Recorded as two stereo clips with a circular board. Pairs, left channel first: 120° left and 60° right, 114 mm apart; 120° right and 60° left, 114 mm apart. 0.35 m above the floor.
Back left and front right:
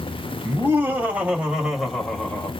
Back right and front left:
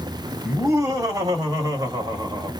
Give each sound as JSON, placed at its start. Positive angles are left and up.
{"t": 0.5, "sound": "laughter", "azimuth_deg": 5, "distance_m": 2.0}